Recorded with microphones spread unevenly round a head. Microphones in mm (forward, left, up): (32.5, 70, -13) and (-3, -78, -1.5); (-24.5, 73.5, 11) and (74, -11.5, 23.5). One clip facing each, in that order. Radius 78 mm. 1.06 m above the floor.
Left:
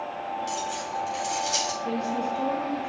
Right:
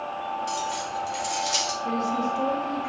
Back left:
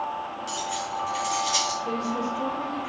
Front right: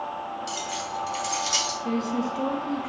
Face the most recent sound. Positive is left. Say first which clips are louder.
# right 2 dB, front right 1 dB
turn(degrees=-10)